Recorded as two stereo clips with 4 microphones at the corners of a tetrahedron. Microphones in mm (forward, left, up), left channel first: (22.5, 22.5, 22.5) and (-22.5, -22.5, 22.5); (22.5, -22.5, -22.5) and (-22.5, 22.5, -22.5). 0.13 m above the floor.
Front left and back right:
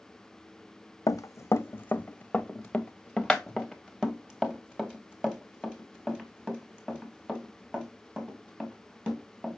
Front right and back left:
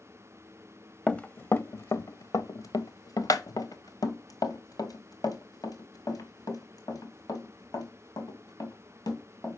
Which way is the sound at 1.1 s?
25° left.